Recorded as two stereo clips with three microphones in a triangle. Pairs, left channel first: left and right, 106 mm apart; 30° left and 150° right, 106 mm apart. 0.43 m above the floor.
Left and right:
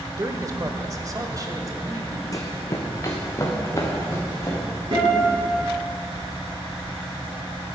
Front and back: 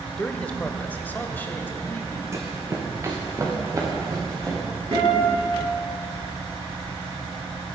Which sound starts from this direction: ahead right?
A man speaking, at 0.2 s.